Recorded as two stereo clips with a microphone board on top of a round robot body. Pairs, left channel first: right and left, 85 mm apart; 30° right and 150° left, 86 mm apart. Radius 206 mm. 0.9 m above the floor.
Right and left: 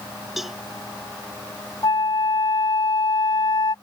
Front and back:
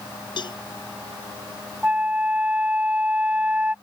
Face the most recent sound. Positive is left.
turn(degrees=-135)